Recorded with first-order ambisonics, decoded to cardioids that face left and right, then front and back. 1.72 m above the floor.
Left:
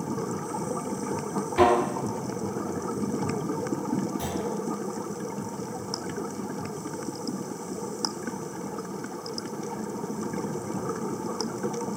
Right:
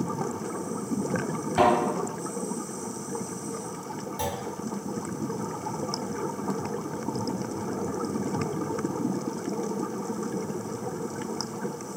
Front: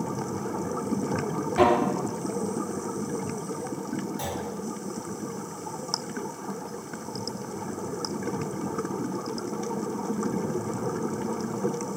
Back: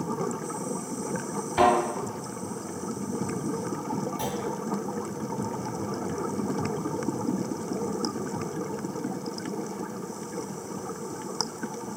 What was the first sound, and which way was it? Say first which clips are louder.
A thud: left 1 dB, even; 130° right.